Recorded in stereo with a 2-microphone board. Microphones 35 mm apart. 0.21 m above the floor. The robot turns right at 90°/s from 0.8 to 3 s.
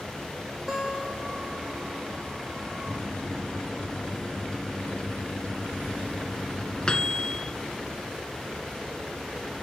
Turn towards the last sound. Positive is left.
turn(degrees=25)  # may be behind; listen again after turning